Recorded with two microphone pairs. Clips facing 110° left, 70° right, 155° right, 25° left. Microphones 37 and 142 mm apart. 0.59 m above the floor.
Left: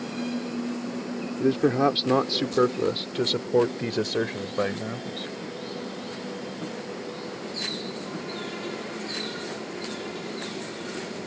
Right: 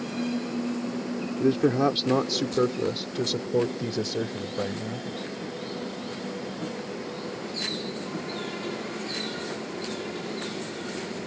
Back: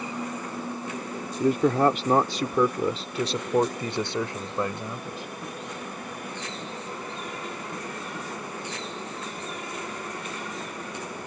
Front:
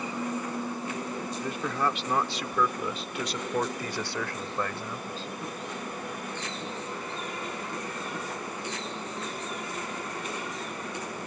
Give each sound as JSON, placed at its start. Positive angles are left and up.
{"t": 1.4, "sound": "a man speaking", "azimuth_deg": -170}